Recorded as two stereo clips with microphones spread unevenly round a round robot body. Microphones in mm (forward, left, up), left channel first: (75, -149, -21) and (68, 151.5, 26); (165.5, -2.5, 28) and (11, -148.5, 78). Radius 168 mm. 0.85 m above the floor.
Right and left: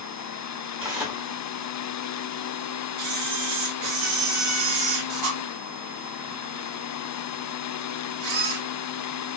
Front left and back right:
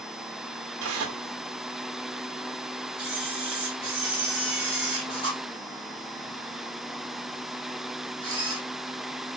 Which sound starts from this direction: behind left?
A camera shutter, at 3.0 s.